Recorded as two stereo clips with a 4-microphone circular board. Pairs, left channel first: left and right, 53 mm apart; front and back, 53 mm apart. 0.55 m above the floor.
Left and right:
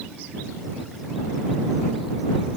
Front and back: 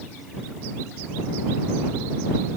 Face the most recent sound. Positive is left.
No sound to turn to.